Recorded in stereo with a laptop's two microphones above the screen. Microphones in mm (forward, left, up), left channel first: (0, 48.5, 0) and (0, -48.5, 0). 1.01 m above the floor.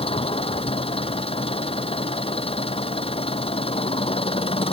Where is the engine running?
75° left (ahead or behind).